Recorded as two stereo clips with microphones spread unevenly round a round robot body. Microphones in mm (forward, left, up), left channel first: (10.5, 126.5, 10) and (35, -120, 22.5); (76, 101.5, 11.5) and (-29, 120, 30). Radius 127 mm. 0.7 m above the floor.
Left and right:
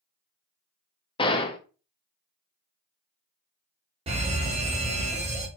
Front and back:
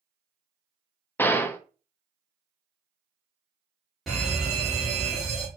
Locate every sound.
1.2 s a gunshot: 40° left, 0.6 m
4.1 s a fire alarm: 75° right, 1.4 m